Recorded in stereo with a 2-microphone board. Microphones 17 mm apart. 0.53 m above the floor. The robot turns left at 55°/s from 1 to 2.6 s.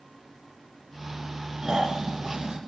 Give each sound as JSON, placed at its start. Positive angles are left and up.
{"t": 1.6, "sound": "snoring", "azimuth_deg": -40, "distance_m": 1.7}